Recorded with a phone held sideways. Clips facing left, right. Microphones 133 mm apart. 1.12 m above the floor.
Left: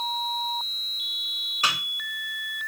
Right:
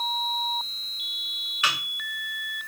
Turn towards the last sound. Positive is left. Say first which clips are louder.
# left 1 dB
turn(degrees=35)  # may be behind; listen again after turning